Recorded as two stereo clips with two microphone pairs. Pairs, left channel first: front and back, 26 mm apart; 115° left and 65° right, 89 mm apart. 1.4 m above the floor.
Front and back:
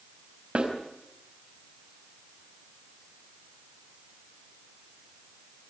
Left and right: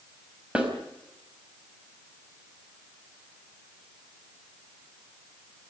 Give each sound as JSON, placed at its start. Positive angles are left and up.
{"t": 0.6, "sound": "a snare drum", "azimuth_deg": -140, "distance_m": 4.5}